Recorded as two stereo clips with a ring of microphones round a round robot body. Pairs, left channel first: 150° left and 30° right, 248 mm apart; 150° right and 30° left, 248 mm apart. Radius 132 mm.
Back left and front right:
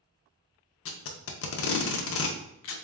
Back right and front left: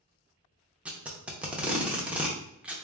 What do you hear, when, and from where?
0.8 s tape being pulled: 115° left, 0.5 m